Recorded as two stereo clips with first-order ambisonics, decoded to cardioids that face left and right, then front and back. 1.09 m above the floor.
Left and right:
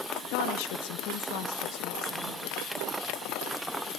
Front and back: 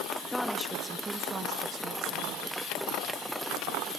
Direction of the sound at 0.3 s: 80° left.